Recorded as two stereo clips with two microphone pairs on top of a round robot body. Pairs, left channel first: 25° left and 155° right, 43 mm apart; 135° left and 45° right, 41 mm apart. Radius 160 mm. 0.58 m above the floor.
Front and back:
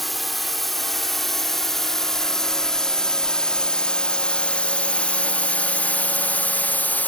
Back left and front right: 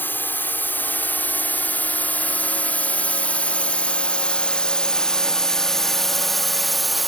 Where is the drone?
110° left; by 7.1 s 40° left.